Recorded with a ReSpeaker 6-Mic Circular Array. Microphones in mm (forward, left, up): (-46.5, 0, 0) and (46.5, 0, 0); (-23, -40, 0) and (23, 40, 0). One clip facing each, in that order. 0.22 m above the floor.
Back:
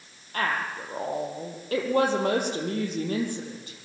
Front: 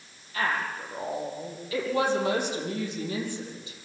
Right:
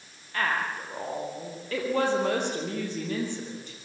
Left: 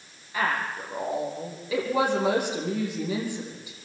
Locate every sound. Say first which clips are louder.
0.3 s a woman speaking: back 1 dB, left 1 dB; 140° left, 6.5 m